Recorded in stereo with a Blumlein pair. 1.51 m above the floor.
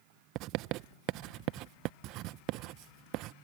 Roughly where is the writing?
Ahead right.